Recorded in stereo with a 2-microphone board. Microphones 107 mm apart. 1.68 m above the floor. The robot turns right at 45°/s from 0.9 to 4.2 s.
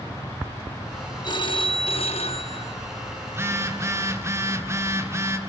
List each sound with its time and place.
1.2 s a phone ringing: 45° left, 1.2 m; by 2.8 s 115° left, 1.2 m
3.3 s a phone buzzing: 20° right (ahead or behind), 1.3 m; by 5.4 s 25° right (ahead or behind), 1.3 m